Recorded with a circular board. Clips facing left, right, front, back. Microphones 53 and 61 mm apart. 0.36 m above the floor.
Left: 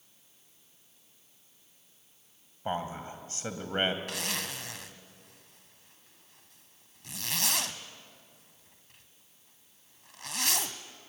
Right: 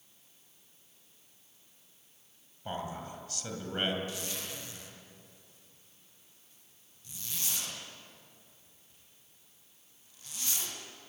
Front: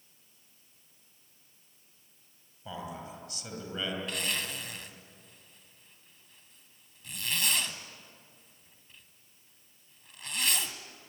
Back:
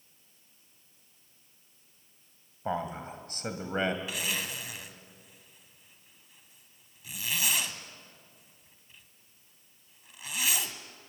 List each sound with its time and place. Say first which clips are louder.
2.6 s a man speaking: left 4 dB, back 7 dB; 140° left, 2.5 m
4.1 s a zipper: left 4 dB, even; 95° left, 1.5 m